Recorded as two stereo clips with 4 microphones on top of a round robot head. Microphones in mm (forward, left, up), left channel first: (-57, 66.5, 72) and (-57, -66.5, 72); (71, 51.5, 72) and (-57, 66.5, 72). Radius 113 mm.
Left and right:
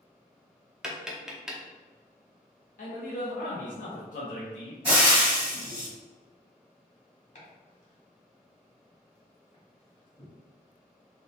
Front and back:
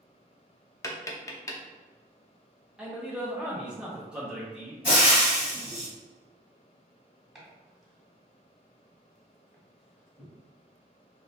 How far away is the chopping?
About 1.5 m.